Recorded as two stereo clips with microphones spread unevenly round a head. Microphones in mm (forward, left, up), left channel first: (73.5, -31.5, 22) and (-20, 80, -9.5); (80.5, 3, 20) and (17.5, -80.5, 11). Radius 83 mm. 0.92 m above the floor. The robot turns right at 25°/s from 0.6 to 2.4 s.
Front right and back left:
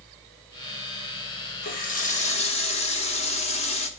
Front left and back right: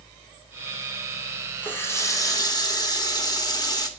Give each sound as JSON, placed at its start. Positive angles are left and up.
{"t": 1.6, "sound": "a running tap", "azimuth_deg": -20, "distance_m": 1.4}